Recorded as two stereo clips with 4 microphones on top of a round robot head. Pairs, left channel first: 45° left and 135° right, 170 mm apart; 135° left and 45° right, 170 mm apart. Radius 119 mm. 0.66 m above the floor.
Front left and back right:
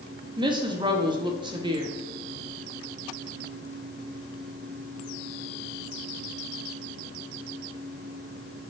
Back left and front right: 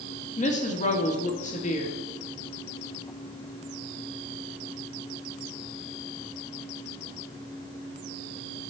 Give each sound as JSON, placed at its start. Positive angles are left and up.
{"t": 0.4, "sound": "a woman speaking", "azimuth_deg": 170, "distance_m": 1.9}